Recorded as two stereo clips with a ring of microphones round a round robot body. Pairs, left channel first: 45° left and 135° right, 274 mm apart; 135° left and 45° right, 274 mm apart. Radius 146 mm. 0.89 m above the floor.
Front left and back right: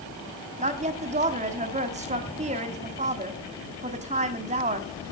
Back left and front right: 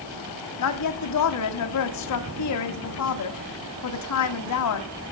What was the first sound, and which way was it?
A woman speaking, 160° left.